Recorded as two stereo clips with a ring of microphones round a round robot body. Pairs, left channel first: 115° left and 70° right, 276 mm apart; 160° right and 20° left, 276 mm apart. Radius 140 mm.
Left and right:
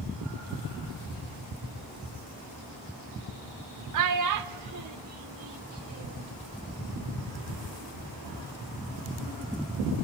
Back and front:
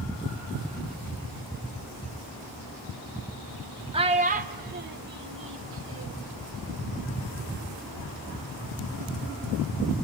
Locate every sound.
3.9 s a child speaking: 50° right, 1.2 m; by 6.3 s 20° right, 2.5 m